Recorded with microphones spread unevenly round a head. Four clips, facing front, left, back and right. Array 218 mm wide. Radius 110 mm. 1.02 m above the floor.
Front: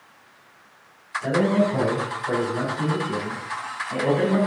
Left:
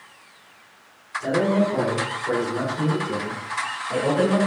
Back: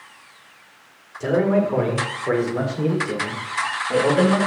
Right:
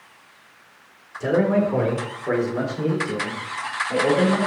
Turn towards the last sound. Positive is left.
turn(degrees=180)